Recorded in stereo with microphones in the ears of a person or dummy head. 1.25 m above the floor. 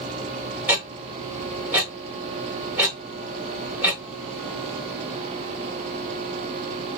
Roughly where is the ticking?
Centre.